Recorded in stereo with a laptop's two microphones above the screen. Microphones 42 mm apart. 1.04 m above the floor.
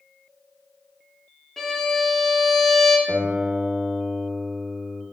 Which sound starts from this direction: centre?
A violin, at 1.6 s.